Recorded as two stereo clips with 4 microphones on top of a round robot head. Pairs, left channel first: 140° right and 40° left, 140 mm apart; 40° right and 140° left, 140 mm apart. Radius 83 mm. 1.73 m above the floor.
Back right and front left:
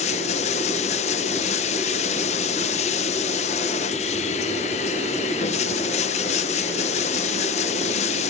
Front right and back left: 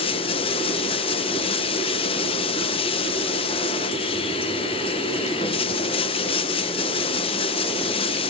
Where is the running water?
90° right, 1.1 m.